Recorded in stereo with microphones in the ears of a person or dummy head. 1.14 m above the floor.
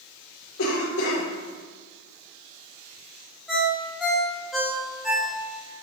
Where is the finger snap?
I don't hear a finger snap.